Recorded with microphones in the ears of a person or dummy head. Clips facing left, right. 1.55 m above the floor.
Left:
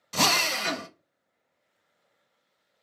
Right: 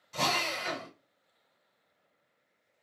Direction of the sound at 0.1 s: 75° left (ahead or behind).